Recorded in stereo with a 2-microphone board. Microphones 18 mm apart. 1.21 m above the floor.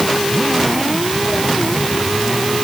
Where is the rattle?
I don't hear a rattle.